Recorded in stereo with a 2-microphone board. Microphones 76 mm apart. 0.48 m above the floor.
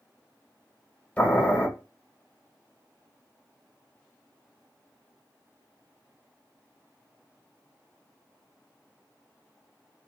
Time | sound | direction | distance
1.2 | boiling | 20° left (ahead or behind) | 1.4 m